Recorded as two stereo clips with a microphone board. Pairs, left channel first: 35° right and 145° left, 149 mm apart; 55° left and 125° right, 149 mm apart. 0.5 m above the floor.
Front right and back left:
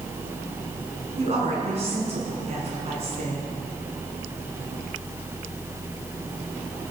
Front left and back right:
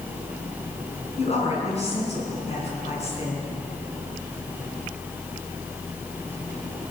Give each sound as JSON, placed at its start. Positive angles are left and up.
{"t": 1.2, "sound": "a woman speaking", "azimuth_deg": 100, "distance_m": 4.5}